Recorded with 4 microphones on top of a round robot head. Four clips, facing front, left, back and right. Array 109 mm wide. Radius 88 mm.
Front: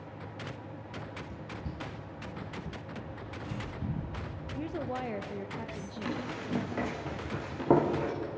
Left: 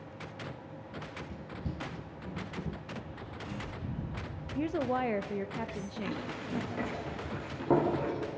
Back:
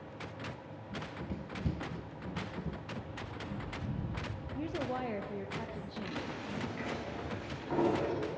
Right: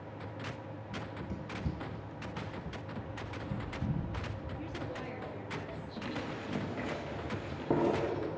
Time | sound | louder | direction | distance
0.9 | running footsteps | right 2 dB, back 4 dB | 135° right | 1.3 m
2.9 | a bird | right 1 dB, front 1 dB | 60° right | 8 m
4.5 | a woman speaking | left 13 dB, front 1 dB | 90° left | 0.7 m
6.0 | running footsteps | right 2 dB, front 7 dB | 10° right | 5.5 m